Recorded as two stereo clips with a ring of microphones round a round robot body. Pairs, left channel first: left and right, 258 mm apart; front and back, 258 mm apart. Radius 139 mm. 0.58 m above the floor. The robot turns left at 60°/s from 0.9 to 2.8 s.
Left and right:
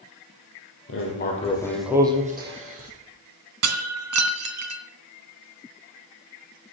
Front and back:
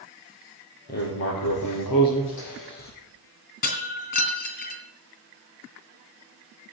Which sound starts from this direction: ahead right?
Breaking glass, at 3.6 s.